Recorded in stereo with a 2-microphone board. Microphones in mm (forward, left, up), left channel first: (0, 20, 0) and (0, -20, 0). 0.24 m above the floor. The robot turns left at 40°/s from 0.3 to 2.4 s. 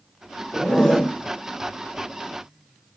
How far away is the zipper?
About 0.7 m.